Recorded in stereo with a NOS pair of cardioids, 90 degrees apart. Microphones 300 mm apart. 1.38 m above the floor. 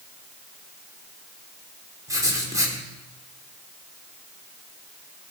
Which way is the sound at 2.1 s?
10° right.